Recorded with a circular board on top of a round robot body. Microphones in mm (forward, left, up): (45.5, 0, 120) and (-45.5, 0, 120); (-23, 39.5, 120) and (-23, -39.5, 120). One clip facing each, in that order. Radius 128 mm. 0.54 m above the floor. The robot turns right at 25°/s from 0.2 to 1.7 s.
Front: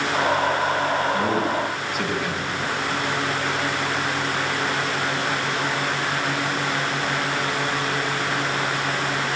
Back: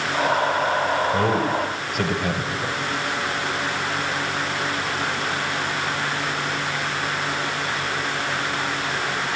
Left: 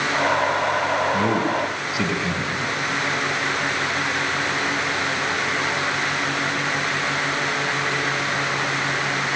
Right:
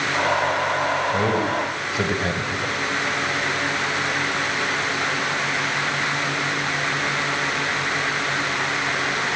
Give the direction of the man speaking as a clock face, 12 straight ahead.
5 o'clock.